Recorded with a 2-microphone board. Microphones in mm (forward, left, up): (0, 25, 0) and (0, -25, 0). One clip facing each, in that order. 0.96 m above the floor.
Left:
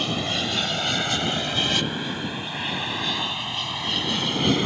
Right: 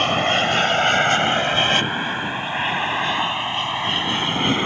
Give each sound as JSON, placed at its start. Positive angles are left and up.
{"t": 0.0, "sound": "an aircraft", "side_deg": -45}